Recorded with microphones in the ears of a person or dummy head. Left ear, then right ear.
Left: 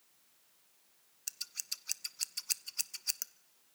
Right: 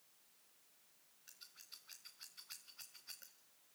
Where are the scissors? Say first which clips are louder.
Left 17 dB; 70° left (ahead or behind), 0.7 m.